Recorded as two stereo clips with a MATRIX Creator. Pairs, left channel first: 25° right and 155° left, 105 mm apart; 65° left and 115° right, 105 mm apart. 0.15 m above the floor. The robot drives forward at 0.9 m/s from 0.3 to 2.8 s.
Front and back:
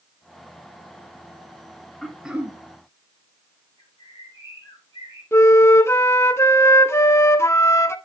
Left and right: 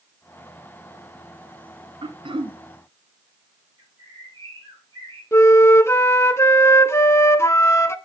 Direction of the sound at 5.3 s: 20° left.